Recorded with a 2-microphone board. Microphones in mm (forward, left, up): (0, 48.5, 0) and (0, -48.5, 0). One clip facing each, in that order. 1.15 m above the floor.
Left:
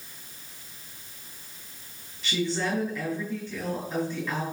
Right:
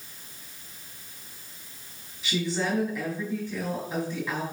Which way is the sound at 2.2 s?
10° right (ahead or behind).